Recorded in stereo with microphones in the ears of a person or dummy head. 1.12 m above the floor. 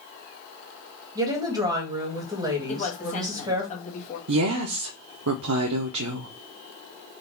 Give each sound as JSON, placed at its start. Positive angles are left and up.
{"t": 1.1, "sound": "a woman speaking", "side_deg": -20, "distance_m": 1.3}
{"t": 2.7, "sound": "a woman speaking", "side_deg": 35, "distance_m": 1.4}
{"t": 4.3, "sound": "a woman speaking", "side_deg": -80, "distance_m": 0.6}